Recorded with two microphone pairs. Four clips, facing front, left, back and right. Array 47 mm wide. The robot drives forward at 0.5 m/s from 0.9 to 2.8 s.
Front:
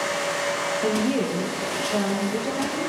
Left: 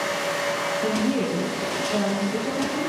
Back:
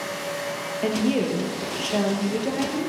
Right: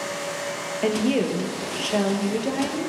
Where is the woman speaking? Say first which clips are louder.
Right 5 dB, back 3 dB; 105° right, 4 m; by 2.9 s 120° right, 4.5 m.